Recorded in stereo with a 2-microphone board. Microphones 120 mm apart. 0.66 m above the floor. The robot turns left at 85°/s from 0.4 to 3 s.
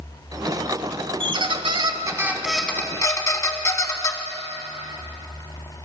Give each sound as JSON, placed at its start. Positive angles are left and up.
{"t": 1.2, "sound": "a squeak", "azimuth_deg": -65, "distance_m": 0.7}